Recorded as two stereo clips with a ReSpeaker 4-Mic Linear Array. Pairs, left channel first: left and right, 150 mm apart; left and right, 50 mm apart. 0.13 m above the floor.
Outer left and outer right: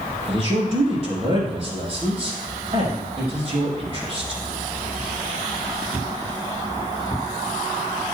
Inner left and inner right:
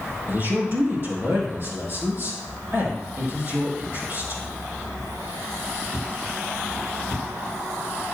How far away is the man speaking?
About 4.5 m.